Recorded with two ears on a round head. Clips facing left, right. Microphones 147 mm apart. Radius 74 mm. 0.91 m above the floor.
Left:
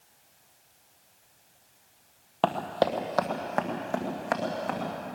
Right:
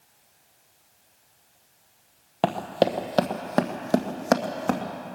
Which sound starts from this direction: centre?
Running footsteps, at 2.4 s.